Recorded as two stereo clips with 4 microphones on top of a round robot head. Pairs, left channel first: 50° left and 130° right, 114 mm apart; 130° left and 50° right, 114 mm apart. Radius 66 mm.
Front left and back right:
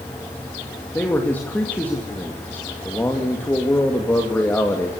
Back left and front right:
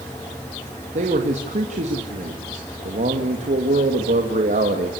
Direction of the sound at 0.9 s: 25° right.